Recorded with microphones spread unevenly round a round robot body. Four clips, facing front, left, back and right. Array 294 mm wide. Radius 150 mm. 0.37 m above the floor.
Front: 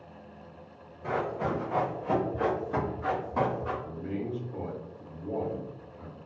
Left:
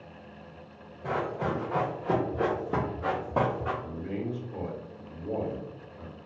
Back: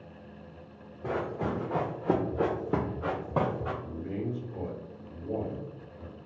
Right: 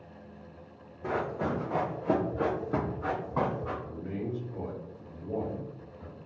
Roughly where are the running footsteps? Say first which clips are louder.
Left 1 dB, front 1 dB; behind right.